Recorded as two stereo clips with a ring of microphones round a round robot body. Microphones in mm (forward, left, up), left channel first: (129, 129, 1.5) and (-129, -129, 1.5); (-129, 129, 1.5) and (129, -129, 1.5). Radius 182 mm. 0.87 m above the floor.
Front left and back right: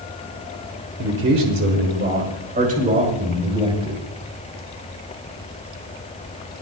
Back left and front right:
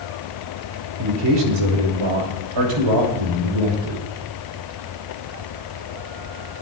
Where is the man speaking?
85° right, 4 m; by 4.0 s 55° right, 6.5 m.